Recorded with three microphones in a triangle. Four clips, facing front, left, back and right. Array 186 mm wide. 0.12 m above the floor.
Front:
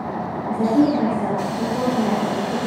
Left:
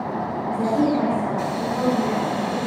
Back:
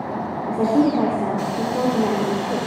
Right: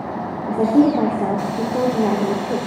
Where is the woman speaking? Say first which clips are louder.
Right 6 dB, front 1 dB; 105° right, 4.5 m.